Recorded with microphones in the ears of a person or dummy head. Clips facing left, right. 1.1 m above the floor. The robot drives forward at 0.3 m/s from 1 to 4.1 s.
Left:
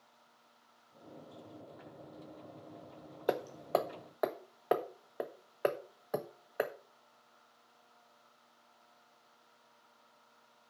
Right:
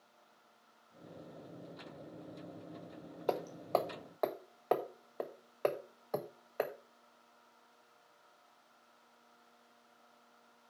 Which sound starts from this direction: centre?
Hammering, at 3.3 s.